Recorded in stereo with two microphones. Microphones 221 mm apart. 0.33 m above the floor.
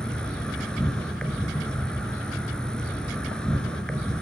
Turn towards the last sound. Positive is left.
turn(degrees=5)  # may be behind; listen again after turning